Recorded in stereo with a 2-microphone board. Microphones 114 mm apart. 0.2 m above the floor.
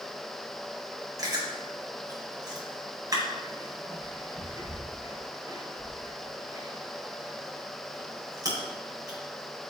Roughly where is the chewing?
Right.